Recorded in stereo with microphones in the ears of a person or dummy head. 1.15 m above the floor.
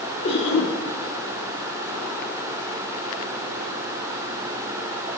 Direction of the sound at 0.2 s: 35° left (ahead or behind).